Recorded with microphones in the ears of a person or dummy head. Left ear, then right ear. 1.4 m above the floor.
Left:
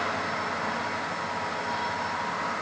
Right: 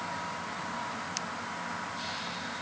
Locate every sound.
Only background noise.